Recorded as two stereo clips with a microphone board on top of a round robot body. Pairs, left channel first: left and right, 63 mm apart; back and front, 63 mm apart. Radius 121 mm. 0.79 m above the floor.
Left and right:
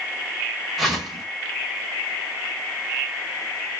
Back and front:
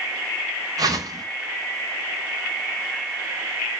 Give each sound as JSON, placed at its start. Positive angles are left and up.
{"t": 0.8, "sound": "a whoosh", "azimuth_deg": 0, "distance_m": 2.5}